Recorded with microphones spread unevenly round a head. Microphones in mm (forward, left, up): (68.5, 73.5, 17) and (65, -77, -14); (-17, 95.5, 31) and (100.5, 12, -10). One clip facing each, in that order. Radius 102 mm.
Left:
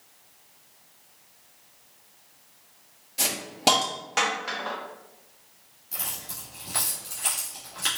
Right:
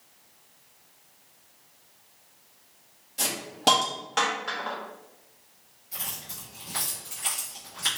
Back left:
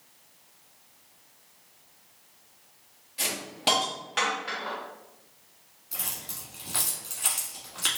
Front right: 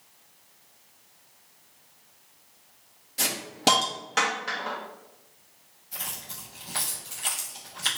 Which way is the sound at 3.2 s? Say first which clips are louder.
Left 1 dB, front right 5 dB; 10° left.